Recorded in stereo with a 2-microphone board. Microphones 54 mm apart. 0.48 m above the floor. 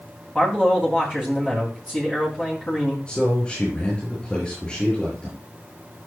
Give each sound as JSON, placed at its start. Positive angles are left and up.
{"t": 0.3, "sound": "a man speaking", "side_deg": -10, "distance_m": 3.0}
{"t": 3.1, "sound": "a man speaking", "side_deg": 15, "distance_m": 7.5}